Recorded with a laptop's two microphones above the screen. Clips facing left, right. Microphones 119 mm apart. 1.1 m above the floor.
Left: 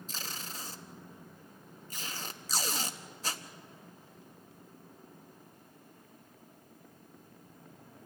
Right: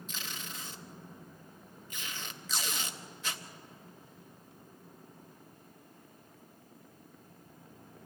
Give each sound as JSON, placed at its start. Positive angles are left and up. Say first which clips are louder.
{"t": 0.1, "sound": "tape being pulled", "louder": "left 1 dB", "side_deg": 35, "distance_m": 0.8}